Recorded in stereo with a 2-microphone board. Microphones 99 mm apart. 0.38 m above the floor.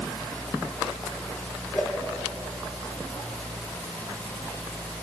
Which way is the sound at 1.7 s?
5° left (ahead or behind).